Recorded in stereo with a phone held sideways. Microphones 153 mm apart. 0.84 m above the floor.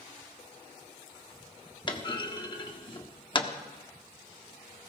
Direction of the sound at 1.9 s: 30° left (ahead or behind).